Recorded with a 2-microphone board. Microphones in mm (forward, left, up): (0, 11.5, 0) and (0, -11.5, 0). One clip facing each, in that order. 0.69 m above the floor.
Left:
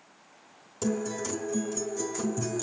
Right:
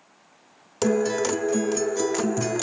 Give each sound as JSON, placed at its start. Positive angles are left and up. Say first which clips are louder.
{"t": 0.8, "sound": "a guitar", "louder": "right 9 dB", "side_deg": -55, "distance_m": 0.5}